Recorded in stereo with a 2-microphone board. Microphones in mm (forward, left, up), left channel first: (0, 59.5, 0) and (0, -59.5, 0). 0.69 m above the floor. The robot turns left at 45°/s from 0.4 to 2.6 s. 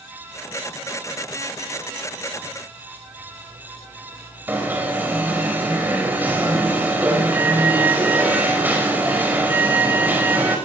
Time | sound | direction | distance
4.5 | an alarm | 15° right (ahead or behind) | 5 m